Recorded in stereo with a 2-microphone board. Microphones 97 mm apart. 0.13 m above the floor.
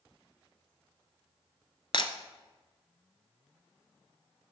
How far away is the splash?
I don't hear a splash.